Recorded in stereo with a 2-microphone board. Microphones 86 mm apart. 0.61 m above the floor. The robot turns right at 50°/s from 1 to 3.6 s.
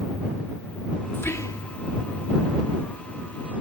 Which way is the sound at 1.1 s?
25° left (ahead or behind).